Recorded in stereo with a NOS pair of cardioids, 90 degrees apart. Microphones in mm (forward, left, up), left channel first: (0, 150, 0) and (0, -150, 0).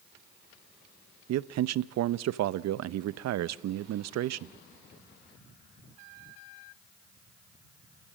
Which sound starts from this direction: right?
A man speaking, at 1.3 s.